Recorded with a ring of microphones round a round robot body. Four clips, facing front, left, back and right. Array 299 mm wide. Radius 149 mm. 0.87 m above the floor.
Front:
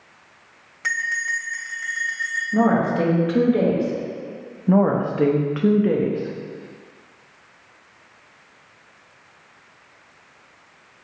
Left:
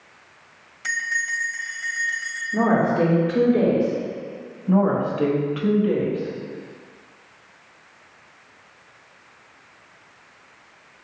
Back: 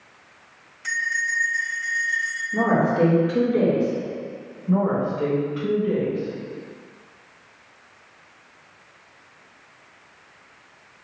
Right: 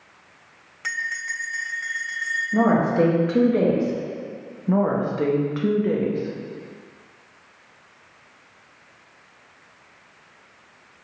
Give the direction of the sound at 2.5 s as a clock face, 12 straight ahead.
2 o'clock.